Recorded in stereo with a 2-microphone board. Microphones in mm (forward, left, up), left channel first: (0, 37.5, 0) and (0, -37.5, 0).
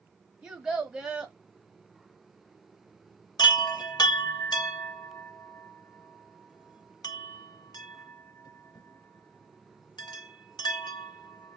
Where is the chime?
65° left (ahead or behind), 0.6 m.